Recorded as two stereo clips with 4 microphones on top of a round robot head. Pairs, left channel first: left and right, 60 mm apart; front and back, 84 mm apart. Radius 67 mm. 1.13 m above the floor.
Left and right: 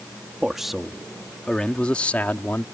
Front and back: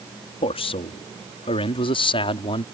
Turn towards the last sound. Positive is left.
turn(degrees=20)